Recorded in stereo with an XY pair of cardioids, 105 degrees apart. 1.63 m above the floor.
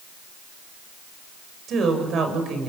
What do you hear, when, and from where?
1.7 s a woman speaking: 60° right, 7 m